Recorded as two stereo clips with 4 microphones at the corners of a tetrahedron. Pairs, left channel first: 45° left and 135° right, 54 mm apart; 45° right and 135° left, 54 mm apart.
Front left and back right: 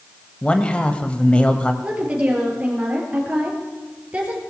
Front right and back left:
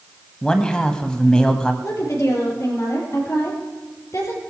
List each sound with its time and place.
0.4 s a man speaking: 10° left, 1.2 m
1.8 s a woman speaking: 70° right, 5 m